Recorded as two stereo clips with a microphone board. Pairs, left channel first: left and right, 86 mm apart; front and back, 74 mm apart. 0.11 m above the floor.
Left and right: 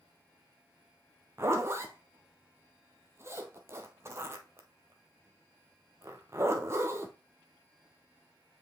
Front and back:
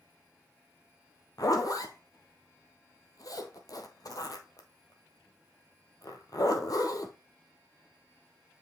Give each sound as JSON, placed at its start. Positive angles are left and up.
{"t": 1.4, "sound": "a zipper", "azimuth_deg": -30, "distance_m": 1.0}